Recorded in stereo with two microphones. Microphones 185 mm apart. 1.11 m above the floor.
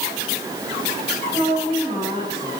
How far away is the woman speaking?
About 8 m.